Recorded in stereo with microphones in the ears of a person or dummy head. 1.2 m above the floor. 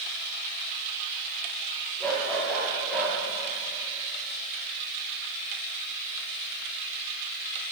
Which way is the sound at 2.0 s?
10° left (ahead or behind).